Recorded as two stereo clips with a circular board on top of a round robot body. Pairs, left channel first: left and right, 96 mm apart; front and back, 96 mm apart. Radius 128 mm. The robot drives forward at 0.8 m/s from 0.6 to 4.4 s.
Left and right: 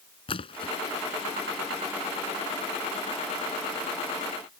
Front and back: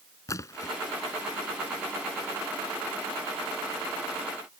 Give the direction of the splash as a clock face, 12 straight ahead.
10 o'clock.